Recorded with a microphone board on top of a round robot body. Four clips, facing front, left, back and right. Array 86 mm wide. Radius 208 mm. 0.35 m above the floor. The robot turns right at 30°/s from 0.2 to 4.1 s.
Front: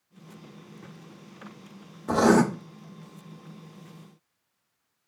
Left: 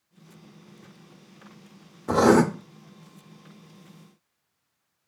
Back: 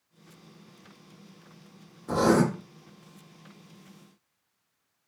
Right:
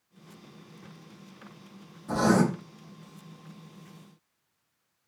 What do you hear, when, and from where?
2.1 s writing: 60° left, 0.7 m; by 2.4 s 70° left, 0.7 m